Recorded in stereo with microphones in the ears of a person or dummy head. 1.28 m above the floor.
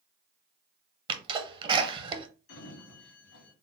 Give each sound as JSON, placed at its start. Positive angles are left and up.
{"t": 1.1, "sound": "a sneeze", "side_deg": -25, "distance_m": 0.8}
{"t": 2.5, "sound": "a sliding door", "side_deg": 70, "distance_m": 1.3}